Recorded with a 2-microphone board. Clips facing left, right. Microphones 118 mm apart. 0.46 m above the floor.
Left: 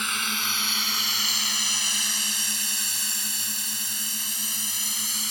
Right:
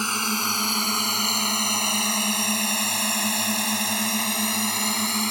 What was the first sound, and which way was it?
A drone, 35° right (ahead or behind).